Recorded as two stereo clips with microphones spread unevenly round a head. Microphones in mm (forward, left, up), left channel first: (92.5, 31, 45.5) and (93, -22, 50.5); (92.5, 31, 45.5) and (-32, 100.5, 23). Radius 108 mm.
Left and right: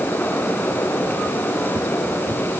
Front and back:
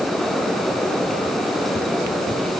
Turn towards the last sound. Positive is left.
No sound to turn to.